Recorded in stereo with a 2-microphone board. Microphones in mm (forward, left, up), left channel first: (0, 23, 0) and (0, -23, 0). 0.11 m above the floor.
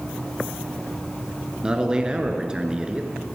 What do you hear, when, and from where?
1.6 s a man speaking: 20° right (ahead or behind), 1.4 m